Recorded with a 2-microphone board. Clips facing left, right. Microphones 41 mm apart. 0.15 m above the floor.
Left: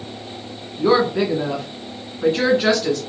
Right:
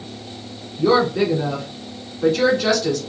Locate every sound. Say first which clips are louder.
0.8 s a woman speaking: even; 25° left (ahead or behind), 1.3 m